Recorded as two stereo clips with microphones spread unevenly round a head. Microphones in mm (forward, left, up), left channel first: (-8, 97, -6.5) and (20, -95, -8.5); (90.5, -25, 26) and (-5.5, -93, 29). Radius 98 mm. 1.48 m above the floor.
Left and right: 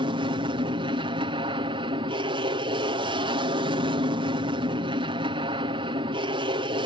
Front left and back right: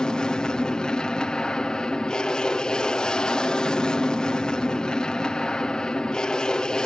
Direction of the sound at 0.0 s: 40° right.